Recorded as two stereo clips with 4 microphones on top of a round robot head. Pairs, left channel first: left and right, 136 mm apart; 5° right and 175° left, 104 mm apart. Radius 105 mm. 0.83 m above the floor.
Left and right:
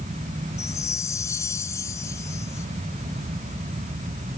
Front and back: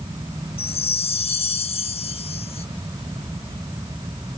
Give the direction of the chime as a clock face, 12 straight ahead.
11 o'clock.